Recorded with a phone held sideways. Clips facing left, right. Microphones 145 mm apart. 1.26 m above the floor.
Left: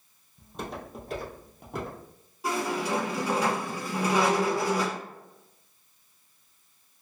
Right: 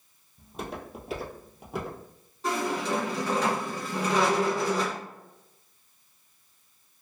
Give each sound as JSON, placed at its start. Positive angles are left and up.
{"t": 0.4, "sound": "footsteps", "side_deg": -5, "distance_m": 1.9}
{"t": 2.4, "sound": "a squeak", "side_deg": 10, "distance_m": 1.2}